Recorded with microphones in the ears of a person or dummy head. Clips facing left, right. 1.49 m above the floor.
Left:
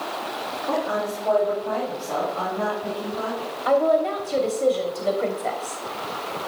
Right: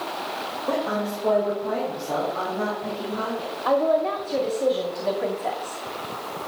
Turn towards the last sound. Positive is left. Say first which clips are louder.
# left 2 dB
turn(degrees=5)  # may be behind; listen again after turning